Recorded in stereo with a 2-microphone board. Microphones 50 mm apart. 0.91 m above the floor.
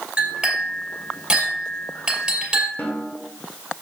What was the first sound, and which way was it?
A clink, 15° right (ahead or behind).